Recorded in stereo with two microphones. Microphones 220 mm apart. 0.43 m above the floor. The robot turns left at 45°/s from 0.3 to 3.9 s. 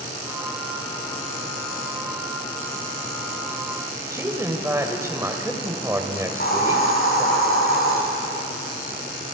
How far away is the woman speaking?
About 2 m.